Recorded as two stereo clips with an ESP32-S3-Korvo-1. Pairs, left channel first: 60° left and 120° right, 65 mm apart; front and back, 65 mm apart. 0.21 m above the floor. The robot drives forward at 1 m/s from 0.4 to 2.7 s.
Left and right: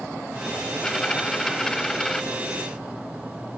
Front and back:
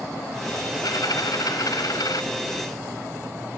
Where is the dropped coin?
20° right; by 2.2 s 25° right.